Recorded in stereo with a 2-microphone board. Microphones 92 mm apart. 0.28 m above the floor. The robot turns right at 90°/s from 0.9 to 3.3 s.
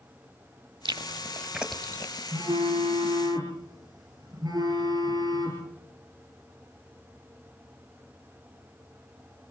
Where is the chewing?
70° right (ahead or behind), 1.4 m; by 2.2 s 45° left (ahead or behind), 1.4 m.